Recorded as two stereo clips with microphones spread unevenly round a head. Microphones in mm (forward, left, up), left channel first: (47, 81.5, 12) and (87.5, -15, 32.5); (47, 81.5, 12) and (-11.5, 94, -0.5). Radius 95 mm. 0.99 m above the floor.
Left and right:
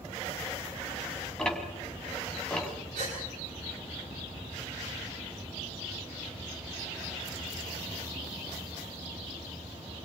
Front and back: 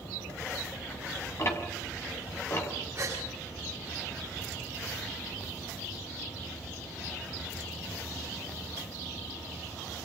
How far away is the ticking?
About 4.5 m.